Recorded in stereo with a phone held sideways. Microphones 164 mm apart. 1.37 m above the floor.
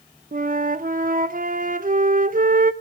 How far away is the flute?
About 0.7 m.